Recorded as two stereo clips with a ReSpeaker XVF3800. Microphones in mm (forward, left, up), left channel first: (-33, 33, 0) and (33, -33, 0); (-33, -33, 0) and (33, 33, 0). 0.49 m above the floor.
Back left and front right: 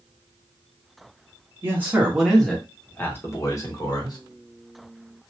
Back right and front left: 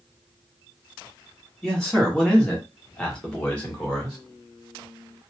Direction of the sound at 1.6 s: 60° right.